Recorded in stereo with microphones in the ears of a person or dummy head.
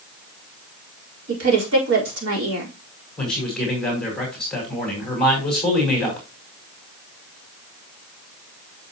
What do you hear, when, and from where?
1.3 s a woman speaking: 85° right, 4 m
3.2 s a man speaking: 5° left (ahead or behind), 5 m